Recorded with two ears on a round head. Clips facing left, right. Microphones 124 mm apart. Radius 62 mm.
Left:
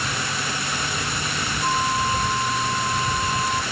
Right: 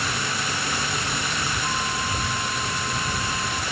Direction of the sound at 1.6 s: 30° left (ahead or behind).